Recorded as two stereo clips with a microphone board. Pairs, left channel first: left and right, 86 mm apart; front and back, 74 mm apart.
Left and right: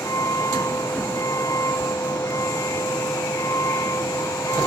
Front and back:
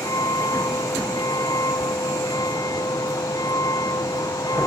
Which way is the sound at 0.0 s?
35° left.